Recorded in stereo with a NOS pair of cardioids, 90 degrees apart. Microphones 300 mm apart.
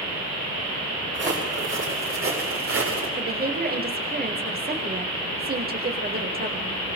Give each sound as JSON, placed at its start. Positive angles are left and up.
{"t": 1.1, "sound": "footsteps", "azimuth_deg": -40, "distance_m": 7.5}
{"t": 3.2, "sound": "a woman speaking", "azimuth_deg": -30, "distance_m": 4.5}